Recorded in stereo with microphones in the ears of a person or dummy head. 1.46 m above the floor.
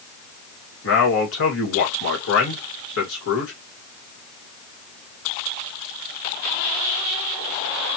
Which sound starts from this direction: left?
A man speaking, at 0.8 s.